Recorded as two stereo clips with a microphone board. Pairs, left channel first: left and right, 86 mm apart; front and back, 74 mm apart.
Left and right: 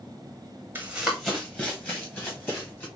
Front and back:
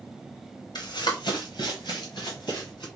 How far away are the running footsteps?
About 0.9 m.